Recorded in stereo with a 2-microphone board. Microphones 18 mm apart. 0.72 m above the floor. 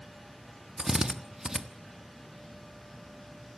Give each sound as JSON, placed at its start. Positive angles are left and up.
{"t": 0.8, "sound": "a drill", "side_deg": -20, "distance_m": 1.3}